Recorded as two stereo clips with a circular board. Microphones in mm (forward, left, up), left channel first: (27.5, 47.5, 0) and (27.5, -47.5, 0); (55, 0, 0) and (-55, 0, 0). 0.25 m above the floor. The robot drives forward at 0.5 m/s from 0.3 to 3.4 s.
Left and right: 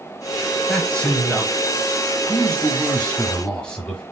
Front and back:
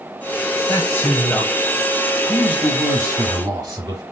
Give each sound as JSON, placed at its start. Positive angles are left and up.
{"t": 0.7, "sound": "a man speaking", "azimuth_deg": 25, "distance_m": 1.1}